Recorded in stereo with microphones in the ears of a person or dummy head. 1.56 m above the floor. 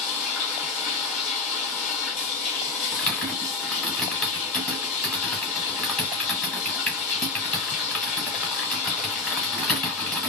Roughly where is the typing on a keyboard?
Centre.